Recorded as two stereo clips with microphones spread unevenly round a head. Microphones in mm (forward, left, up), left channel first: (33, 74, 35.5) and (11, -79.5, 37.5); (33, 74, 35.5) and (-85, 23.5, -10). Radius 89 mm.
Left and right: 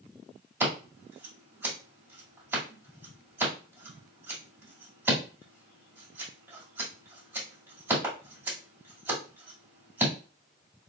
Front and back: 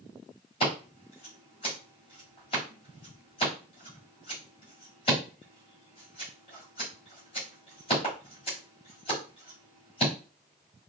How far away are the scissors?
About 2 m.